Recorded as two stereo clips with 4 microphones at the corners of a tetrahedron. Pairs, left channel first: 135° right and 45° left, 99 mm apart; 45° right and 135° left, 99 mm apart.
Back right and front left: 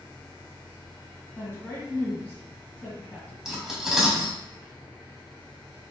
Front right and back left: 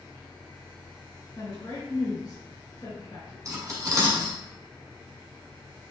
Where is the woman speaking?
75° right, 1.6 m.